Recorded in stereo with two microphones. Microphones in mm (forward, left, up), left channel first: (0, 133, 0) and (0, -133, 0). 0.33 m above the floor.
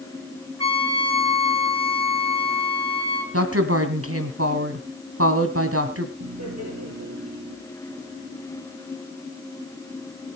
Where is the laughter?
65° right (ahead or behind), 6.5 m.